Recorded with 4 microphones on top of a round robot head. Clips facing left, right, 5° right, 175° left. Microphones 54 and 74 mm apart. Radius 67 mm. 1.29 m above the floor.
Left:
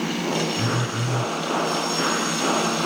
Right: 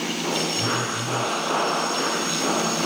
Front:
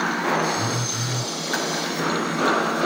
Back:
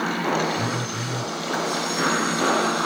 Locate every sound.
0.6 s a phone buzzing: 75° left, 0.8 m